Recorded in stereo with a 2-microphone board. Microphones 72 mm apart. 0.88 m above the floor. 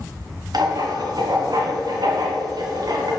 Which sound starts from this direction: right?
Writing, at 0.5 s.